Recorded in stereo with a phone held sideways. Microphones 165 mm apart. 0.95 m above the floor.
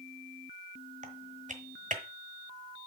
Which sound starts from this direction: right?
Typing on a keyboard, at 1.0 s.